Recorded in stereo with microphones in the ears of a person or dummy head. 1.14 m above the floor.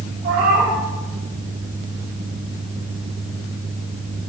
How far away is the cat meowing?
About 3 m.